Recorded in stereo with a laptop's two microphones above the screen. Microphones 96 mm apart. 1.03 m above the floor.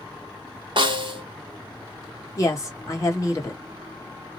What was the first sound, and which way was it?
A snare drum, 55° right (ahead or behind).